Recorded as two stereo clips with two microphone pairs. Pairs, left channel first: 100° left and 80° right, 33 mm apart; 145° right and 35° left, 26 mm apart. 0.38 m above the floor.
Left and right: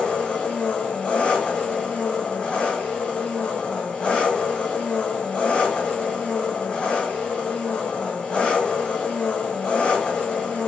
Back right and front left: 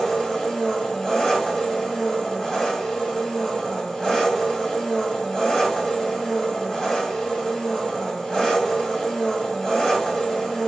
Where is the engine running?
150° left, 1.3 m.